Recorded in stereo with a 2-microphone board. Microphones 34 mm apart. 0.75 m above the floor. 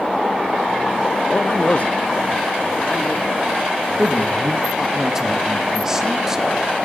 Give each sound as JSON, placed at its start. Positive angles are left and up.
{"t": 1.3, "sound": "a man speaking", "side_deg": 45, "distance_m": 0.6}
{"t": 4.0, "sound": "a man speaking", "side_deg": -10, "distance_m": 1.1}